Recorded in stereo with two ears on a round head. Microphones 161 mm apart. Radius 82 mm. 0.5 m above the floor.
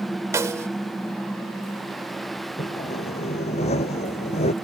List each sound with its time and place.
0.3 s a snare drum: 15° right (ahead or behind)
2.6 s sawing: 40° left (ahead or behind)